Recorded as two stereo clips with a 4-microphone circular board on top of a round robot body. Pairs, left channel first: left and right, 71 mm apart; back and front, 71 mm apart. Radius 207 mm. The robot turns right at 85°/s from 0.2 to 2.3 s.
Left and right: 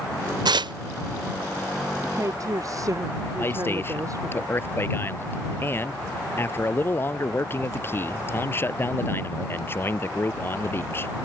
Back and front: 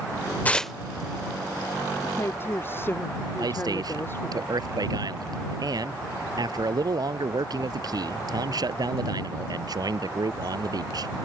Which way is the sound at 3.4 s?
30° left.